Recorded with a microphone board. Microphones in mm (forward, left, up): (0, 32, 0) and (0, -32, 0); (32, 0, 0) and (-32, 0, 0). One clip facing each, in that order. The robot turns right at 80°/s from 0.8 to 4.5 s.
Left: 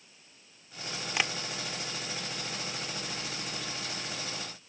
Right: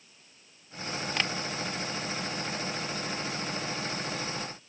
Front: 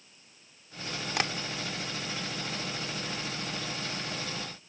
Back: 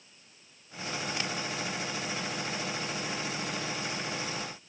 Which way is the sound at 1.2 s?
5° left.